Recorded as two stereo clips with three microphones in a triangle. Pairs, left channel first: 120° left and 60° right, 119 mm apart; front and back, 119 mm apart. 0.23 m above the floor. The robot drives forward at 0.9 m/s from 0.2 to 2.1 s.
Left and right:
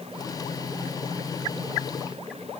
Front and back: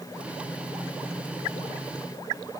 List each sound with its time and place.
Only background noise.